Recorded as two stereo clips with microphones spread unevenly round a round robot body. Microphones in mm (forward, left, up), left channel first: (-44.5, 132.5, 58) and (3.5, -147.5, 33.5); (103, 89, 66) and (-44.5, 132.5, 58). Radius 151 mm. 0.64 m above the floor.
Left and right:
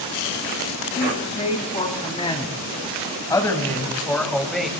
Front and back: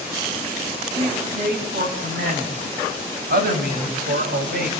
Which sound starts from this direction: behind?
A man speaking, at 1.0 s.